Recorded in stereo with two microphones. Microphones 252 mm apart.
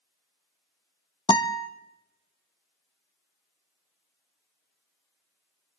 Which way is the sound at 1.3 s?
20° left (ahead or behind).